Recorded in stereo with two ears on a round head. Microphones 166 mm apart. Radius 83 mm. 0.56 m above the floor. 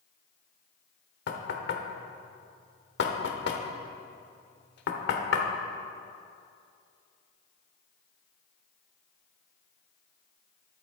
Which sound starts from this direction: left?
Knocking, at 1.3 s.